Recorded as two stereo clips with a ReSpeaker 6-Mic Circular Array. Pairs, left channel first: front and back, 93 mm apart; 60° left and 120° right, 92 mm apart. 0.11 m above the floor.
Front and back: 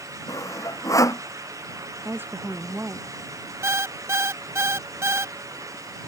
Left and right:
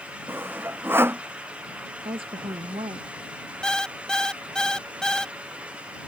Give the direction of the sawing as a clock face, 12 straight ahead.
2 o'clock.